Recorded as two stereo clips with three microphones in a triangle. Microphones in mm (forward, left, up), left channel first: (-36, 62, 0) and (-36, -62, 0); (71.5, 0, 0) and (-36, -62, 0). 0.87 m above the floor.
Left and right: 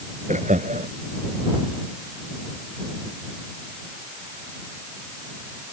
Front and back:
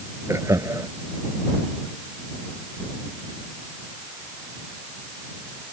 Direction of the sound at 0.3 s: 85° right.